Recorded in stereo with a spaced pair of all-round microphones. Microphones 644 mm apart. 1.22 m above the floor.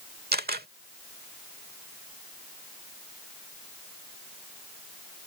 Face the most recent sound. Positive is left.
turn(degrees=-15)  # may be behind; listen again after turning